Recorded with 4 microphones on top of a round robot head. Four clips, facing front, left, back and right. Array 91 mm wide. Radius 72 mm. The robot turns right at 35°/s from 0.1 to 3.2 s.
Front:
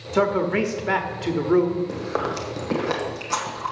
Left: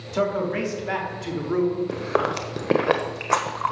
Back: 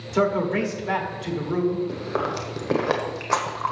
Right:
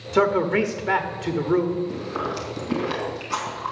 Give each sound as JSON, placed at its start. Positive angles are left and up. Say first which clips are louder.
{"t": 0.1, "sound": "a man speaking", "louder": "right 4 dB, front 1 dB", "azimuth_deg": -70, "distance_m": 1.5}
{"t": 1.9, "sound": "chewing", "louder": "left 4 dB, front 1 dB", "azimuth_deg": 75, "distance_m": 1.2}